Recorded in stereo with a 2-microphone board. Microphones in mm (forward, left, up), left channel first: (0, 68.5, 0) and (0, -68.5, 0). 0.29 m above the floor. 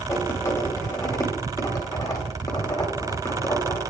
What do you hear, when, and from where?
0.1 s writing: 25° left (ahead or behind), 0.8 m